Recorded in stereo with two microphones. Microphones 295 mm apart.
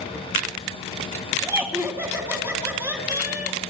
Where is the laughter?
10° right (ahead or behind), 1.5 m.